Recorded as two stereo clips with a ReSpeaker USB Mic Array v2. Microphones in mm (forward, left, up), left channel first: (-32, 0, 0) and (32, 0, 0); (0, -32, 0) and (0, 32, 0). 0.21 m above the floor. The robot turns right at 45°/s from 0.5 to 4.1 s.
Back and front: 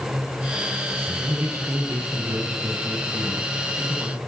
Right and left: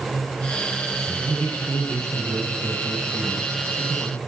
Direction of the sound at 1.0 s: 55° right.